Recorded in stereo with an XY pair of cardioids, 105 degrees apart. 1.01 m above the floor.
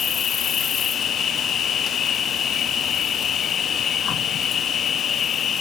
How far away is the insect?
About 0.8 m.